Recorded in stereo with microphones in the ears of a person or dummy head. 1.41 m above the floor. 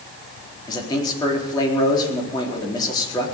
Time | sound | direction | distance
0.7 | a man speaking | 30° left (ahead or behind) | 4 m